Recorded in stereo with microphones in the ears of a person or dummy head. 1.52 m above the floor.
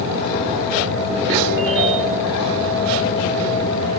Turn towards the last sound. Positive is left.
turn(degrees=-70)  # may be behind; listen again after turning